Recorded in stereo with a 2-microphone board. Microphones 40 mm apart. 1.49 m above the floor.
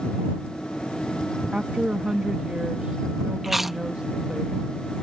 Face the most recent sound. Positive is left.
turn(degrees=-10)  # may be behind; listen again after turning